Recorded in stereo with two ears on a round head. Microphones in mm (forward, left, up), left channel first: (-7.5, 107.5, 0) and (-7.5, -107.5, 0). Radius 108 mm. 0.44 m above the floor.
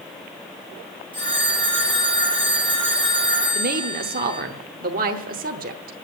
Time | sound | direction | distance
1.1 | a phone ringing | 20° right (ahead or behind) | 8 m
3.5 | a woman speaking | 35° right (ahead or behind) | 0.9 m